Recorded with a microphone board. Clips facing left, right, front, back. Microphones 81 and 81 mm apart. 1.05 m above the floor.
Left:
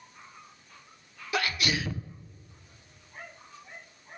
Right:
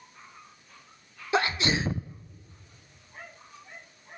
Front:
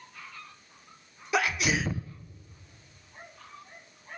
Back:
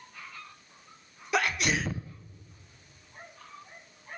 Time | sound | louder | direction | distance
1.3 | a sneeze | right 4 dB, front 1 dB | 90° right | 0.5 m